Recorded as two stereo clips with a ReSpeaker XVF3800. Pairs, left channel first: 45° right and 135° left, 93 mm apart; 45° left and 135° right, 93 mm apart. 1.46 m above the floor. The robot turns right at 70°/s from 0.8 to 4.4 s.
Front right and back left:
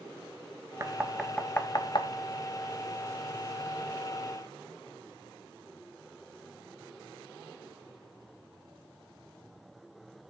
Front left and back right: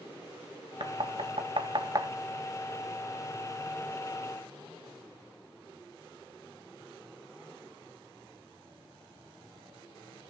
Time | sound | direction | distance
0.8 | knocking | 165° right | 1.2 m